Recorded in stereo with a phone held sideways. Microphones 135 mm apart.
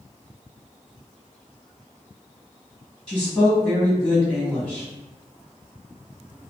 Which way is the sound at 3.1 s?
Centre (ahead or behind).